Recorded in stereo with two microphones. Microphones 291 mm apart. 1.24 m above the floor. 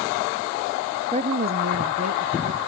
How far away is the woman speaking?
About 0.5 m.